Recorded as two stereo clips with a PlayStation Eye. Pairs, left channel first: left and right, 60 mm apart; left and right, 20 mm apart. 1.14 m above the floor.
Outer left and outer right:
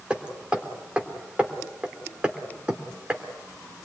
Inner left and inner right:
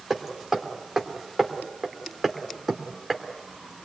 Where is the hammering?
15° right (ahead or behind), 3 m.